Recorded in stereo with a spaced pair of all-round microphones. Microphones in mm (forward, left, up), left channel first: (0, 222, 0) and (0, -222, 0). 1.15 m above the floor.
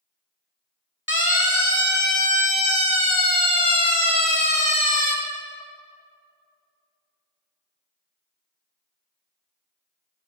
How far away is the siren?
About 2 m.